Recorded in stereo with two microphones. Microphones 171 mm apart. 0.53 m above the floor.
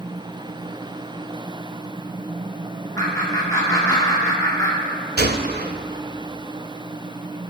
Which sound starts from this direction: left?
Laughter, at 3.0 s.